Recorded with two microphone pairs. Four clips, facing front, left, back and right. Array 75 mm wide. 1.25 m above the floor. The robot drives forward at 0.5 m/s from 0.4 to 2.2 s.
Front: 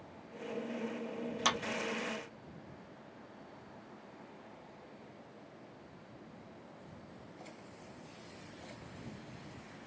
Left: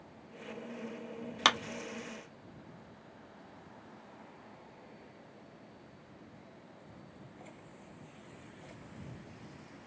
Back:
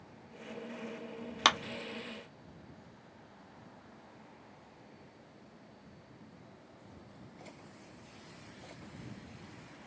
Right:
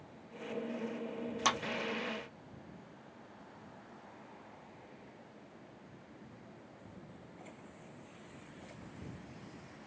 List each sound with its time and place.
1.4 s a clap: 140° left, 0.5 m; by 1.6 s 145° left, 0.6 m